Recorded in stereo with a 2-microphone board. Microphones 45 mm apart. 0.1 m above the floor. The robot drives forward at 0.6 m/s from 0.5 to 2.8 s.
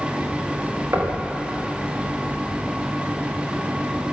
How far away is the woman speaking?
I don't hear a woman speaking.